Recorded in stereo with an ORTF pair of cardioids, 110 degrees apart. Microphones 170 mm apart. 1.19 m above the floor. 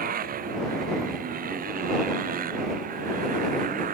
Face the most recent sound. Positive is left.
turn(degrees=-50)